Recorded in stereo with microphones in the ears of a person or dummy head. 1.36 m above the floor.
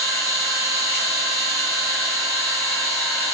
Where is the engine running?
5° left (ahead or behind), 0.8 m.